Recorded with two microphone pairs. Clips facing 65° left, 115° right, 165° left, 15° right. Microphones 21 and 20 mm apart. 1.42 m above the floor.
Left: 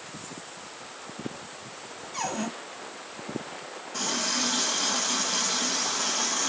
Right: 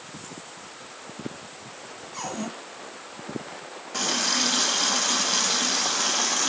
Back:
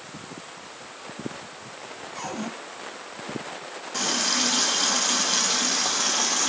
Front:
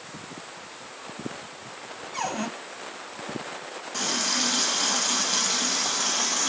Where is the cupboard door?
5° right, 1.2 m.